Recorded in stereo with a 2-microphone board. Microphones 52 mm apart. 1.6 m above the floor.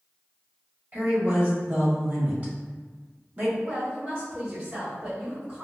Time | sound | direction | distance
0.9 | a woman speaking | 35° right (ahead or behind) | 1.2 m
3.6 | a woman speaking | 25° right (ahead or behind) | 1.5 m